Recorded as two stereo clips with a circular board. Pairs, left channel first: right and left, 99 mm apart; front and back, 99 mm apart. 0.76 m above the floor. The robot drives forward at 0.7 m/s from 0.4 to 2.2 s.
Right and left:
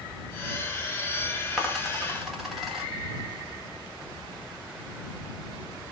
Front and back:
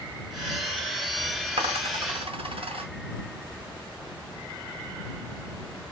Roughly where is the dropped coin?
Behind.